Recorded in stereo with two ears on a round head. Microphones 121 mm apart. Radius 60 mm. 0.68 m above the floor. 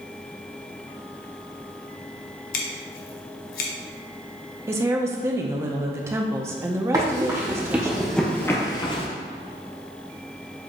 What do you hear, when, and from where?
2.5 s scissors: 75° left (ahead or behind), 0.8 m
4.7 s a woman speaking: 20° right (ahead or behind), 0.5 m
6.9 s running footsteps: 25° right (ahead or behind), 1.7 m; by 9.1 s 45° left (ahead or behind), 1.0 m